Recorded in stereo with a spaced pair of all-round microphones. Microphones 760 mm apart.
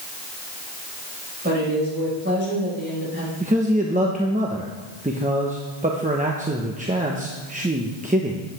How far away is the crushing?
I don't hear crushing.